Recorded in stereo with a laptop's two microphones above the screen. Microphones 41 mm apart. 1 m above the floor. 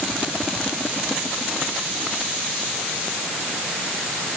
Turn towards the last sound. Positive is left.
No sound to turn to.